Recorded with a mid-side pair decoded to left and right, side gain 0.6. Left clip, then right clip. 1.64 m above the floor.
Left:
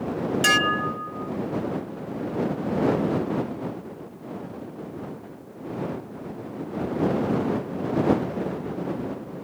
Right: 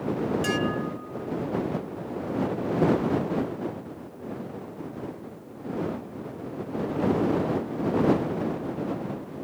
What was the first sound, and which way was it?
Dishes clattering, 55° left.